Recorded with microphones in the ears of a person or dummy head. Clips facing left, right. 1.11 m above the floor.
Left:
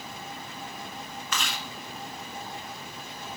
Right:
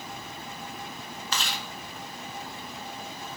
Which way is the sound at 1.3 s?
35° right (ahead or behind).